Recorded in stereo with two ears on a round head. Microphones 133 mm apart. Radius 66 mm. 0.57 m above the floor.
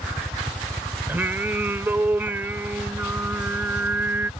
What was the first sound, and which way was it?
A helicopter, 15° left (ahead or behind).